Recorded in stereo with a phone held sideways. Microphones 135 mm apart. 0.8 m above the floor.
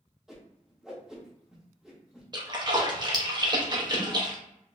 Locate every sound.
0.3 s a whoosh: 5° right (ahead or behind), 0.8 m
2.3 s a splash: 35° right (ahead or behind), 0.7 m